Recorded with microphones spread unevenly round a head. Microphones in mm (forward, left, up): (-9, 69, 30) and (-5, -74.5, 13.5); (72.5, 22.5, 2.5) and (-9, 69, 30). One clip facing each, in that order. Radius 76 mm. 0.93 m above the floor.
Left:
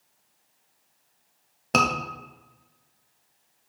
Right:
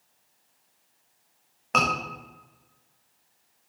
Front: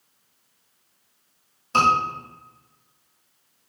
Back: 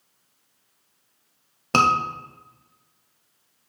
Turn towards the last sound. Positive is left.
turn(degrees=140)